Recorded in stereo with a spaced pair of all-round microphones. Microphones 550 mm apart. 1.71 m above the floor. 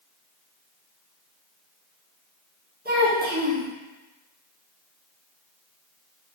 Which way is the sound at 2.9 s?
20° right (ahead or behind).